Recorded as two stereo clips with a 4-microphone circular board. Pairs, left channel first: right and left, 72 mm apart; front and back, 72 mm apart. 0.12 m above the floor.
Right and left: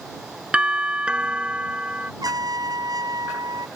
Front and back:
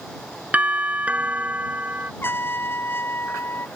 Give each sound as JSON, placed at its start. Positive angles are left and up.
{"t": 0.5, "sound": "a doorbell", "azimuth_deg": 145}
{"t": 2.2, "sound": "a trumpet", "azimuth_deg": 60}